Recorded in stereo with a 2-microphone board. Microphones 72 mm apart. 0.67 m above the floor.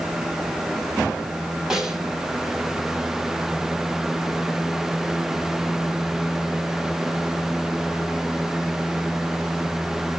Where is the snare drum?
5° right (ahead or behind), 1.4 m.